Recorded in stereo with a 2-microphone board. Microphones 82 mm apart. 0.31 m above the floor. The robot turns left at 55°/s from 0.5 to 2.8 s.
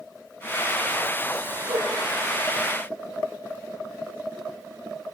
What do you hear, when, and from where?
1.7 s a whoosh: 55° right (ahead or behind), 9.5 m; by 1.9 s 65° right (ahead or behind), 9.5 m